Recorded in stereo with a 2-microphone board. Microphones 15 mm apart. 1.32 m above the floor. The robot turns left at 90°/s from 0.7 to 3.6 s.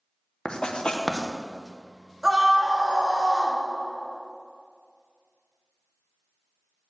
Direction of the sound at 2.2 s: 40° right.